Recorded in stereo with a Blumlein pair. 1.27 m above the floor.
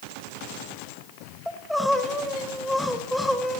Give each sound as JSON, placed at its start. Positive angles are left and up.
{"t": 1.5, "sound": "crying", "azimuth_deg": 0, "distance_m": 1.7}